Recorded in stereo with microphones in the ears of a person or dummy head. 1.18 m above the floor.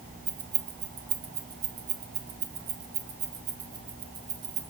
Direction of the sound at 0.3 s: 65° right (ahead or behind).